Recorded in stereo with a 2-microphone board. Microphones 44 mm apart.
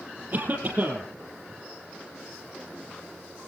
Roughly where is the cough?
Right.